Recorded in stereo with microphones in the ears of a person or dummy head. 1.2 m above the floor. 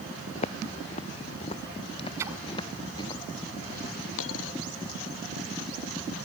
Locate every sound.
0.3 s footsteps: 35° left (ahead or behind); by 3.2 s 20° left (ahead or behind)
2.2 s a splash: 20° right (ahead or behind)
4.2 s a dropped coin: 75° left (ahead or behind)